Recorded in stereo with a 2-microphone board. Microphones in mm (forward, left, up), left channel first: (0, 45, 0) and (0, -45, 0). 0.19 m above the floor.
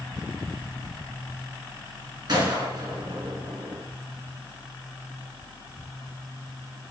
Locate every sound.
2.3 s a gunshot: 45° right (ahead or behind), 1.7 m